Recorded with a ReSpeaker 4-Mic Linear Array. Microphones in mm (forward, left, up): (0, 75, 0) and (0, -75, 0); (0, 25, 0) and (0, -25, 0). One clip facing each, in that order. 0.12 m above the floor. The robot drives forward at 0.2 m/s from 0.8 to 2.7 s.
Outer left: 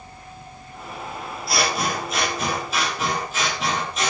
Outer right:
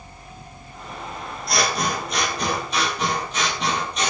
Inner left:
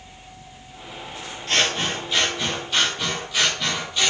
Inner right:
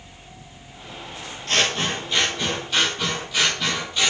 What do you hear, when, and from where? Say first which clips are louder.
1.5 s scissors: even, even; 5° left (ahead or behind), 0.6 m; by 4.1 s centre (ahead or behind), 0.8 m